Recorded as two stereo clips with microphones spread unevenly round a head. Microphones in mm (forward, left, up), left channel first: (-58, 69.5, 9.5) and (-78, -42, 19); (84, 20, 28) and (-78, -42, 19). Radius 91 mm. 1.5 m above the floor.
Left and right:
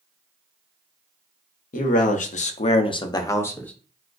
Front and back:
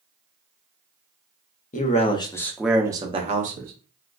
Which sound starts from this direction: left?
A man speaking, at 1.7 s.